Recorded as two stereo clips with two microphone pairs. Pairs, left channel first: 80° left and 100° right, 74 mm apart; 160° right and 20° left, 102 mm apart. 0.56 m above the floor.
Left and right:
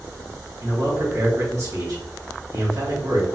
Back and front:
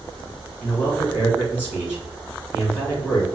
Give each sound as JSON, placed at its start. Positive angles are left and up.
{"t": 0.6, "sound": "a man speaking", "azimuth_deg": -85, "distance_m": 2.0}